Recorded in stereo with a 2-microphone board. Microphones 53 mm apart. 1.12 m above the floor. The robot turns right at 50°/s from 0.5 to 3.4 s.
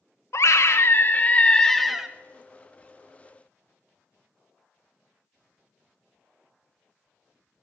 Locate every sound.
0.3 s a scream: 110° left, 0.9 m; by 2.1 s 170° right, 0.9 m